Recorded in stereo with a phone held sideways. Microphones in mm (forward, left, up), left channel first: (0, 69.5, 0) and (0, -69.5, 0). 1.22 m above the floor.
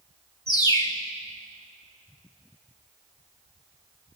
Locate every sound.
0.5 s a bird: 30° left (ahead or behind), 2.0 m